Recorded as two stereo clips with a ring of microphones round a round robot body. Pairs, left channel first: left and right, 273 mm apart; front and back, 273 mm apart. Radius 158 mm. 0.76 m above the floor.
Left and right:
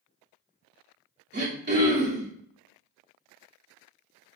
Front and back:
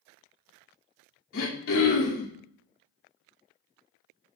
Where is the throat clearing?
40° right, 2.5 m.